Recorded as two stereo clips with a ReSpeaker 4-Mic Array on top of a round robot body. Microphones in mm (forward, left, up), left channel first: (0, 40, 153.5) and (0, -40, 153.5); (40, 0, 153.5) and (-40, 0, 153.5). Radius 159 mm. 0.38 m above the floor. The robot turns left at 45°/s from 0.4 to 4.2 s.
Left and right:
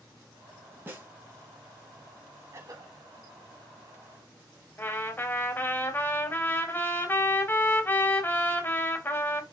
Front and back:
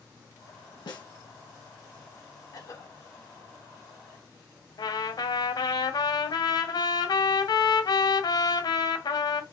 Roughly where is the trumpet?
Ahead left.